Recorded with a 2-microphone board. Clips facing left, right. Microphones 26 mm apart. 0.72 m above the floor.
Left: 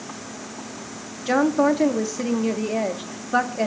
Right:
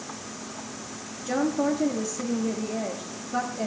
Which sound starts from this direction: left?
A woman speaking, at 1.3 s.